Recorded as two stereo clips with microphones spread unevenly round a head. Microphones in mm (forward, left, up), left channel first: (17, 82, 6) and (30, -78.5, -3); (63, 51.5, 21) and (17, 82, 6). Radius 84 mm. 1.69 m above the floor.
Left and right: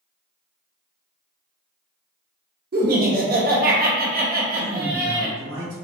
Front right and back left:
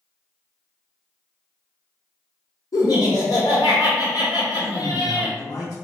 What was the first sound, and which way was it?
Laughter, 55° right.